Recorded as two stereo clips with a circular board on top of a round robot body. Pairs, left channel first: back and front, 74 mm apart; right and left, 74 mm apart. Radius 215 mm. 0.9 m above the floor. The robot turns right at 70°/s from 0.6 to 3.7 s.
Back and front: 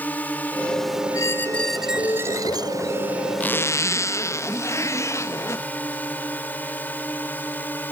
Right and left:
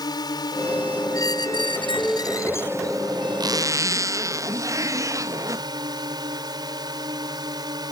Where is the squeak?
135° right; by 3.0 s 5° right.